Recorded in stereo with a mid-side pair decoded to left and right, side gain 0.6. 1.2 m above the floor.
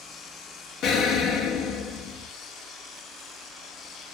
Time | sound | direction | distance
0.8 | an explosion | 60° left | 0.5 m